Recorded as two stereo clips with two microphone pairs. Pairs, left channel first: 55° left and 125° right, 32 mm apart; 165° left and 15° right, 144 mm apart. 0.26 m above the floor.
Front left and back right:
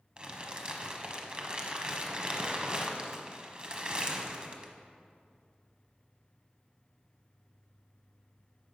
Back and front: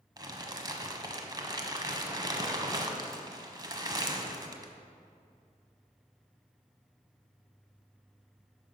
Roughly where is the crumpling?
Right.